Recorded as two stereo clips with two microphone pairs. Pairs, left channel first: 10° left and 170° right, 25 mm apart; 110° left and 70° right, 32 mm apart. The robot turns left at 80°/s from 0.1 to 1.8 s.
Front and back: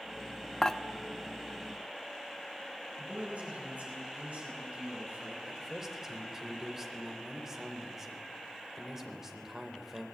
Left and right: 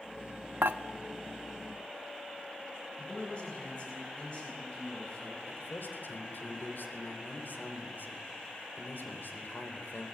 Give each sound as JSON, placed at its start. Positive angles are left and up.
{"t": 0.6, "sound": "dishes clattering", "azimuth_deg": -60, "distance_m": 0.9}
{"t": 3.0, "sound": "a man speaking", "azimuth_deg": 170, "distance_m": 10.0}
{"t": 5.5, "sound": "a man speaking", "azimuth_deg": 115, "distance_m": 3.5}